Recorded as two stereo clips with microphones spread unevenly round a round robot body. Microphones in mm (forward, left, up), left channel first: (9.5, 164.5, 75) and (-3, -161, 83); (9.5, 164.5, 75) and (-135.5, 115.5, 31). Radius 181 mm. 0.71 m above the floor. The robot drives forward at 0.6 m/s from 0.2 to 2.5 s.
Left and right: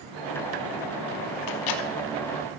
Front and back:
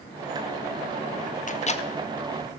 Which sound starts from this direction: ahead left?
A microwave, at 1.5 s.